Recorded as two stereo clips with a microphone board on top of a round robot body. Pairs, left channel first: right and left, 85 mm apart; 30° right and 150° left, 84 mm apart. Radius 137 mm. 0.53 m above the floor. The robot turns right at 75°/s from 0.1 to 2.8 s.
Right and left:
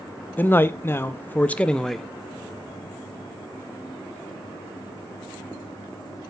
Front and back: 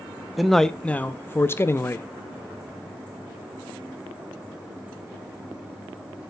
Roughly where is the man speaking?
Behind right.